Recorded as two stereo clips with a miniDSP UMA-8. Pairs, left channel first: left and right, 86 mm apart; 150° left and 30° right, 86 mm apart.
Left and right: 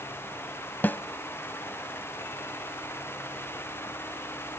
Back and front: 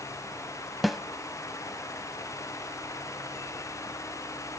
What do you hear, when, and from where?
0.8 s a snare drum: 60° left, 0.8 m